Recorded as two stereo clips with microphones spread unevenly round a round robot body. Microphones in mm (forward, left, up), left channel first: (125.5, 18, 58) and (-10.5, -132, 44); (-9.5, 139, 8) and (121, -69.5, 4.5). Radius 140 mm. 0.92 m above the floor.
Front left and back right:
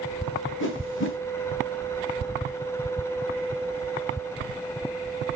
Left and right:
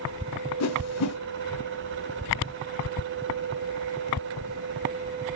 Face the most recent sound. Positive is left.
turn(degrees=100)